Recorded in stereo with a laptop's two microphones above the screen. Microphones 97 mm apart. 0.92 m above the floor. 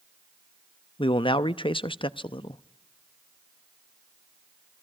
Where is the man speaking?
60° left (ahead or behind), 0.8 m.